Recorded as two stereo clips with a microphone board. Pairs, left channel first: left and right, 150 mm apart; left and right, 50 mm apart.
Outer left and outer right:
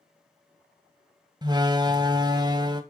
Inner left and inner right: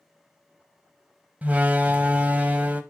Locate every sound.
1.4 s a door slam: 30° right (ahead or behind), 0.9 m